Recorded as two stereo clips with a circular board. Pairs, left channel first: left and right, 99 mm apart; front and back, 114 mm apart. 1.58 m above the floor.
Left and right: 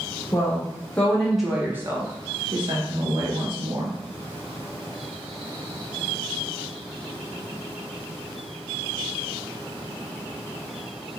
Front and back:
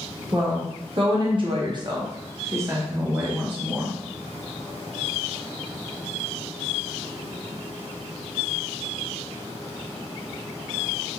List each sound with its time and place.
0.3 s a woman speaking: 135° left, 0.8 m; by 4.0 s 100° right, 1.4 m